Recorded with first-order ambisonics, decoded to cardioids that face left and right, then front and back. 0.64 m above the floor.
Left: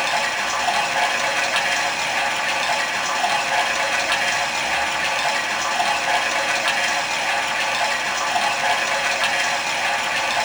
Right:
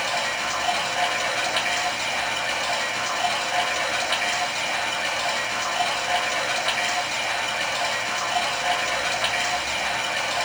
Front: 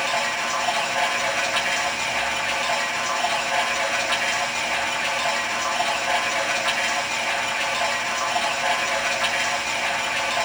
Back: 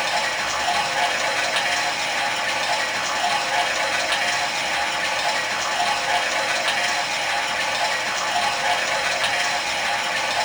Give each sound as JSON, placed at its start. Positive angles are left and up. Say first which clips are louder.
{"t": 0.0, "sound": "running water", "louder": "left 4 dB, back 1 dB", "azimuth_deg": 100, "distance_m": 1.3}